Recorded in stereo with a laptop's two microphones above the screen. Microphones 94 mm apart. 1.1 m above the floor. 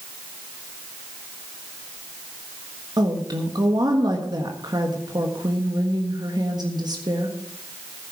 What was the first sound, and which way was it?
A woman speaking, 45° right (ahead or behind).